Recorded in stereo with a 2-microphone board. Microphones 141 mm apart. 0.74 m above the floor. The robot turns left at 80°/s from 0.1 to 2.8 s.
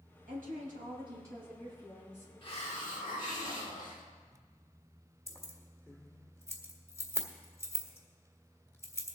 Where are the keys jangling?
20° left (ahead or behind), 1.6 m.